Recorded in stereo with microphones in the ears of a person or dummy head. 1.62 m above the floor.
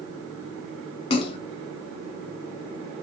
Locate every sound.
1.1 s a splash: 30° left (ahead or behind), 0.6 m